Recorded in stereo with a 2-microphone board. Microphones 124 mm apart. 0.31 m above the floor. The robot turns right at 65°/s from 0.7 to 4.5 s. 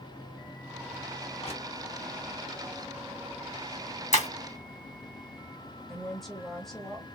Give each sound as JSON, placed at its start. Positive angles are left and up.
{"t": 1.4, "sound": "crushing", "side_deg": 55, "distance_m": 2.0}
{"t": 4.1, "sound": "breaking glass", "side_deg": 70, "distance_m": 2.0}
{"t": 5.9, "sound": "a woman speaking", "side_deg": 0, "distance_m": 1.3}